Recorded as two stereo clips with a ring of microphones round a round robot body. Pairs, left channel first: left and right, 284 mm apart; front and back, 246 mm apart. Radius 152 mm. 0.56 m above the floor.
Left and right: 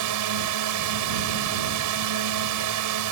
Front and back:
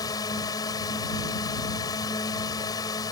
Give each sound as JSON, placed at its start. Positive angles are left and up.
{"t": 0.0, "sound": "a drone", "azimuth_deg": -75}